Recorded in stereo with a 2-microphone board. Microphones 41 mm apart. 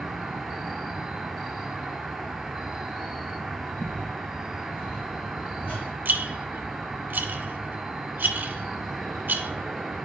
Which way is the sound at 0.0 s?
Centre (ahead or behind).